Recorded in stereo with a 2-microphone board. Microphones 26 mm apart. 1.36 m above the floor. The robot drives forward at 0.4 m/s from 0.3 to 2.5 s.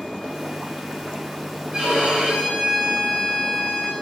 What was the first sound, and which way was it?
A violin, 35° right (ahead or behind).